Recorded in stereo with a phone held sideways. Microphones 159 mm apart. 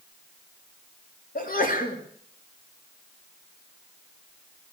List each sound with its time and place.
1.4 s a sneeze: 55° left (ahead or behind), 3 m